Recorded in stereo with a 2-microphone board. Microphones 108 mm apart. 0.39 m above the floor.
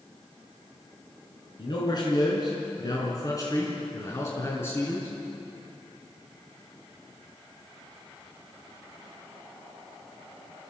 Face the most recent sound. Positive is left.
turn(degrees=20)  # may be behind; listen again after turning